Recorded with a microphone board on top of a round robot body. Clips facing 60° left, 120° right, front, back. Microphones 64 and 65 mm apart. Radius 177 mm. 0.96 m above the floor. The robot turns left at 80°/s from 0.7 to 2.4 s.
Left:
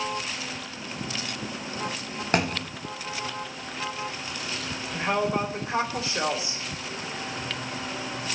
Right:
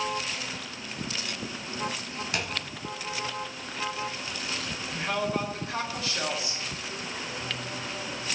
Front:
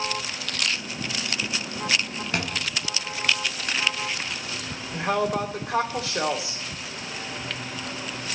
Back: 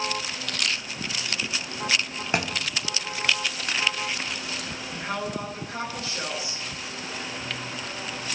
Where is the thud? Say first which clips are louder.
Left 9 dB, back 2 dB; 110° left, 1.0 m; by 2.7 s 105° left, 1.0 m.